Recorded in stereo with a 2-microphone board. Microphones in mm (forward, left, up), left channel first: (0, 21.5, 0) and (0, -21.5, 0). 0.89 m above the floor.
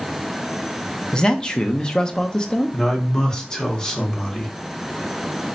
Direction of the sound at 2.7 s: 15° left (ahead or behind).